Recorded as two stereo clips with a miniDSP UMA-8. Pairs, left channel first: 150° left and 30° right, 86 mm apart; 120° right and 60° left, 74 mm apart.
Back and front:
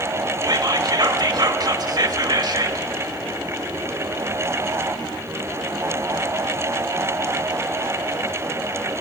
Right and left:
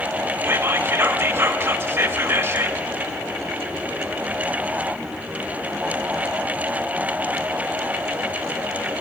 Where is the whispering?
5° left, 1.2 m.